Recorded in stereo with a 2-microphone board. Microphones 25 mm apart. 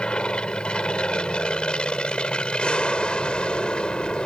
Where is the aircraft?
40° left (ahead or behind).